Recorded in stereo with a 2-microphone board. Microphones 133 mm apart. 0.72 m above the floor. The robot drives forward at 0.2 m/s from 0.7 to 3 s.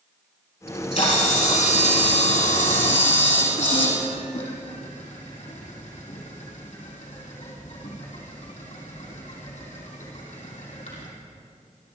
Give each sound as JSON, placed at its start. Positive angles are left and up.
{"t": 0.7, "sound": "a camera shutter", "side_deg": 65, "distance_m": 5.5}